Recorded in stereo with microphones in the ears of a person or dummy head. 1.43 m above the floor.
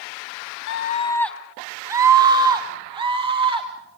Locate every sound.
0.7 s a scream: 65° left (ahead or behind), 0.6 m; by 3.7 s 40° right (ahead or behind), 3.5 m